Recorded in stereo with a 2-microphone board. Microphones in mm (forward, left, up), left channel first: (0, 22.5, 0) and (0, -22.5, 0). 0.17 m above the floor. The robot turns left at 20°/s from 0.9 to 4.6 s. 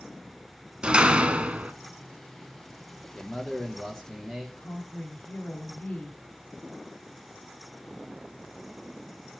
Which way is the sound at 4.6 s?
45° left (ahead or behind).